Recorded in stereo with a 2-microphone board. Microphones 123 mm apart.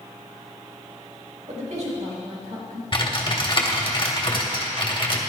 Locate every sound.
1.5 s a woman speaking: 70° right (ahead or behind), 3.5 m
2.9 s typing on a keyboard: 40° left (ahead or behind), 1.6 m